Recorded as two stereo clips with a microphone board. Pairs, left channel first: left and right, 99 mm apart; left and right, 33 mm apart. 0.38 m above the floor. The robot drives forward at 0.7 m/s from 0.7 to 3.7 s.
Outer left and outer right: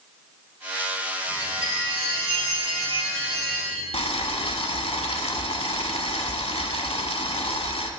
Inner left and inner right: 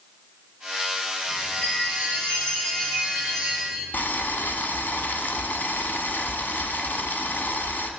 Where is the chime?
35° left (ahead or behind), 3 m; by 3.8 s 25° left (ahead or behind), 4 m.